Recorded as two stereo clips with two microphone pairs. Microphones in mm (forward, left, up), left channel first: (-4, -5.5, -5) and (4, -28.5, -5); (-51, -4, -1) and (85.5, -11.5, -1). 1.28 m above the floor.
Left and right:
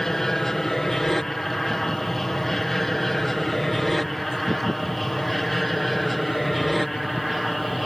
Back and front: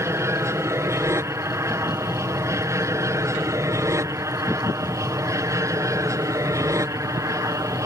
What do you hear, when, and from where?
0.0 s an aircraft: 50° left; by 7.9 s 25° left